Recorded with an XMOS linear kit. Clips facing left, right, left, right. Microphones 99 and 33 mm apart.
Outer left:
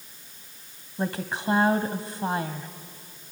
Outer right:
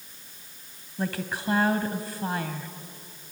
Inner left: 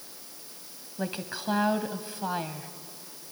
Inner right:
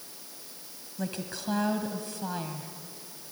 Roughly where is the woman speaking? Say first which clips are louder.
Outer left 1 dB, inner left 2 dB; left.